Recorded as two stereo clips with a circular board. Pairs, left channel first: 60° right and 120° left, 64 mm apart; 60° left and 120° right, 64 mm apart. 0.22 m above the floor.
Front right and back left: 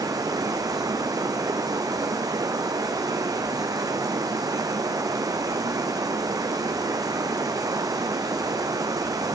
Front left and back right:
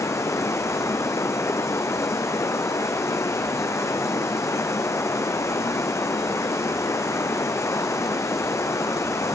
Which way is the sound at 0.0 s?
100° left.